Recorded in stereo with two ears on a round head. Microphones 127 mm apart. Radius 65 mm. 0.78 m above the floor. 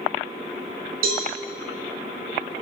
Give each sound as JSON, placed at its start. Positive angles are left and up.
{"t": 1.0, "sound": "a cowbell", "side_deg": -75, "distance_m": 3.0}